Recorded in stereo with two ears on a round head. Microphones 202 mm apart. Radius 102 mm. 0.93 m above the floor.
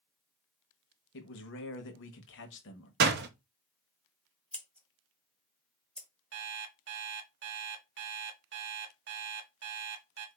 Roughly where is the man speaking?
Left.